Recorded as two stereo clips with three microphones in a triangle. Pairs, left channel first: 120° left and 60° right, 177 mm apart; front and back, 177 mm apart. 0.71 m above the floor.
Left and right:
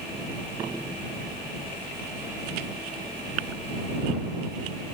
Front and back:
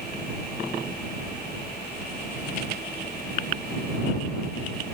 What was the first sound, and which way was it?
Only background noise.